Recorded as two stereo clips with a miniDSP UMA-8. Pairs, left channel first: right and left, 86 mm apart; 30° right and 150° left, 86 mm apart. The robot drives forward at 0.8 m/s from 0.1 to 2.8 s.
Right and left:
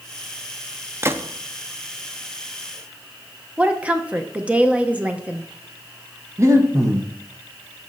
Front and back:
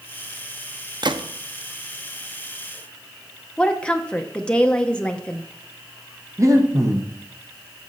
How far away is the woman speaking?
About 0.8 m.